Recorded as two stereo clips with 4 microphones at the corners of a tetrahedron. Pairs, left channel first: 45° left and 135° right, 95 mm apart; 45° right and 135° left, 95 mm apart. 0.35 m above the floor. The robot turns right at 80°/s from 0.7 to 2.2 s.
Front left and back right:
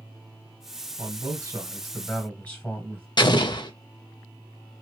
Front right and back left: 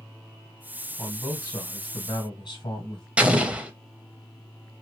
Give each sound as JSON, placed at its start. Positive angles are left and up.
{"t": 1.0, "sound": "a man speaking", "azimuth_deg": -125, "distance_m": 2.5}
{"t": 3.2, "sound": "an explosion", "azimuth_deg": 60, "distance_m": 0.6}